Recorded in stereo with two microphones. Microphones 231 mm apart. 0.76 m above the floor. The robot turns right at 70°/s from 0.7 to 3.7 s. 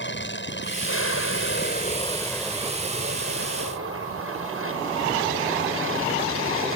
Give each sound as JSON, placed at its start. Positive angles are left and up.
{"t": 0.0, "sound": "an aircraft", "azimuth_deg": 60}